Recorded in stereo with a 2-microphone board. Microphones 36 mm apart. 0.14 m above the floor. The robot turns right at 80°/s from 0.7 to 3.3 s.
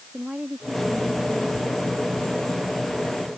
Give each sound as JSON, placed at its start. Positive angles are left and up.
{"t": 0.1, "sound": "a woman speaking", "azimuth_deg": -20}